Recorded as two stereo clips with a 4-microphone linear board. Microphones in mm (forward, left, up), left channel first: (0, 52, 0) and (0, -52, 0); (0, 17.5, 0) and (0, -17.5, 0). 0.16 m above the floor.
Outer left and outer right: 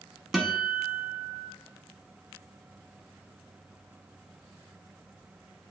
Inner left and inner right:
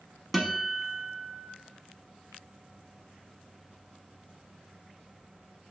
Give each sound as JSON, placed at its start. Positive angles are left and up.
{"t": 0.3, "sound": "a guitar", "side_deg": -5, "distance_m": 0.8}